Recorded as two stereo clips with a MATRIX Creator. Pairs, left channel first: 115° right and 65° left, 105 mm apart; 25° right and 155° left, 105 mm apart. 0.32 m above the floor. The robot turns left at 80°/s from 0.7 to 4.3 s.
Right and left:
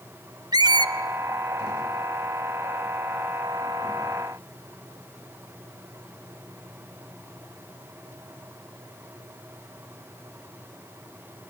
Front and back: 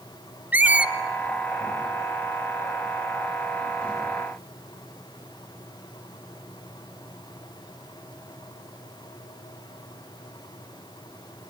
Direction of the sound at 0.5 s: 90° left.